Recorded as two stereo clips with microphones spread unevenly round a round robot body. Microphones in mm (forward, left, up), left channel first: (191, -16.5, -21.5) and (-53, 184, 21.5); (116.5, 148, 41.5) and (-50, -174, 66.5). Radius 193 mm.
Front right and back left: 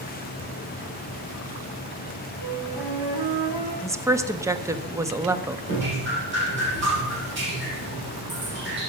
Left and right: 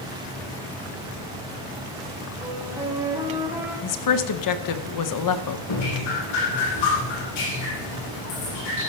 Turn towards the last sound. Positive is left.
turn(degrees=90)